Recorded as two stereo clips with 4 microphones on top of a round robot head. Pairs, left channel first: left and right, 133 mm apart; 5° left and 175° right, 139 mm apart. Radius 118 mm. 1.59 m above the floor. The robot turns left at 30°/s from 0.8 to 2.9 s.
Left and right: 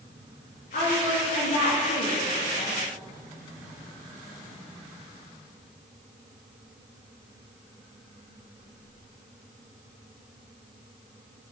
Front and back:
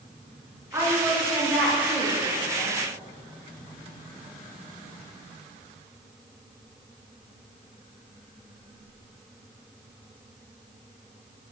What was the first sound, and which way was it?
A woman speaking, 115° left.